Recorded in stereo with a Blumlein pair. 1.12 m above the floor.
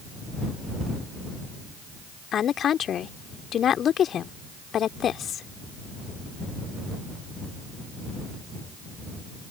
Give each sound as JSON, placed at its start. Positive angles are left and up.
{"t": 2.3, "sound": "a woman speaking", "azimuth_deg": 25}